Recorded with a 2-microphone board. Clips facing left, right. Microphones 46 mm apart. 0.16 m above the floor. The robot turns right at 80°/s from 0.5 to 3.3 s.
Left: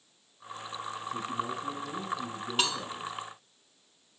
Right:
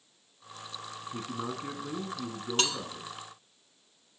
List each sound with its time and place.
1.0 s a man speaking: 150° right, 1.4 m; by 3.1 s 15° left, 1.4 m
2.6 s cutlery clinking: 5° left (ahead or behind), 0.9 m; by 2.8 s 5° right (ahead or behind), 0.9 m